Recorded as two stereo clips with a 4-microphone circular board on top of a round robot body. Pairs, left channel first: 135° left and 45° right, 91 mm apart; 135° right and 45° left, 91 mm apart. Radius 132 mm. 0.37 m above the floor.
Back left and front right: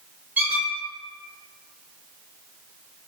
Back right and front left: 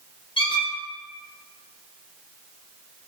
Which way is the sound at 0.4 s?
115° right.